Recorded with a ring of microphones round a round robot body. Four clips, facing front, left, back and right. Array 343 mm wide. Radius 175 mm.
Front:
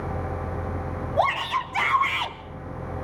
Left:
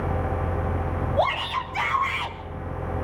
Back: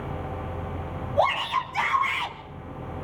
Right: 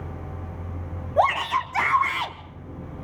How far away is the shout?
About 3.5 m.